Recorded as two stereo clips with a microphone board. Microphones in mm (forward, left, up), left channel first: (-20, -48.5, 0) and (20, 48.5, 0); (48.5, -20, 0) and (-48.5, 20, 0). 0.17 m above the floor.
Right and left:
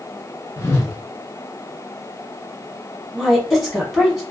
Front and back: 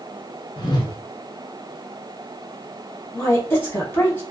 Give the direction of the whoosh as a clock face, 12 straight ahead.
2 o'clock.